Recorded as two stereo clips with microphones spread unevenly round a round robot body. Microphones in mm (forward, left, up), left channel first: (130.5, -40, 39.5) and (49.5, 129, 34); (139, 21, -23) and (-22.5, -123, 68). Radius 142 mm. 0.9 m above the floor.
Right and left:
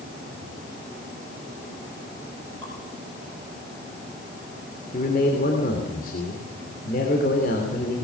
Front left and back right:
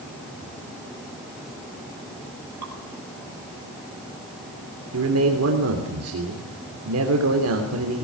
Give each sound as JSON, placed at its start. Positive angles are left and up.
{"t": 2.6, "sound": "dripping", "azimuth_deg": -145, "distance_m": 6.0}
{"t": 4.9, "sound": "a man speaking", "azimuth_deg": -120, "distance_m": 3.0}